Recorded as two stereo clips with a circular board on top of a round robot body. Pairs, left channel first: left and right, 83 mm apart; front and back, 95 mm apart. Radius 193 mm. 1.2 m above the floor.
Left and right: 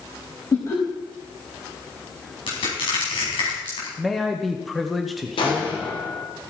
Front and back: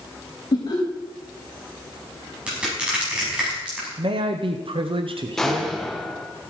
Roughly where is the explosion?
Left.